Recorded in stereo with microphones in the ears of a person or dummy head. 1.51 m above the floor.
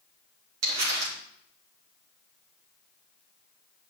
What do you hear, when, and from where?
0.6 s crumpling: 75° right (ahead or behind), 3 m